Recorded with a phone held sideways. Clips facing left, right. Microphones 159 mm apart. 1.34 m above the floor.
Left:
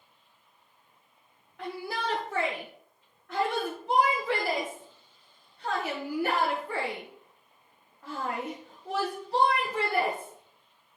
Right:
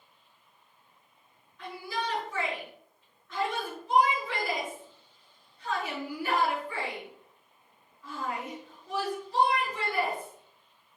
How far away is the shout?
About 1.7 m.